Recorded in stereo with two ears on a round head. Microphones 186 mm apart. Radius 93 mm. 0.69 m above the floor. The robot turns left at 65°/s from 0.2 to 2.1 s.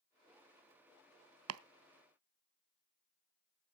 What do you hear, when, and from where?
1.5 s chopping: 80° right, 0.6 m; by 1.6 s 85° right, 0.6 m